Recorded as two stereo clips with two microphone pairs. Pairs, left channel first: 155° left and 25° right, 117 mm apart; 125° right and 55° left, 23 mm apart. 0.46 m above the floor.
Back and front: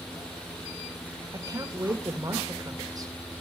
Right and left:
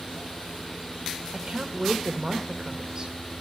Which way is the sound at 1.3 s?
20° left.